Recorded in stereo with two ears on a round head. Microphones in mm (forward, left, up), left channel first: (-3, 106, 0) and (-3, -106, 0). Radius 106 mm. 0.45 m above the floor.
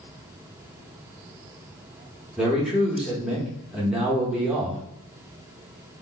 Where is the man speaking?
5° right (ahead or behind), 0.9 m.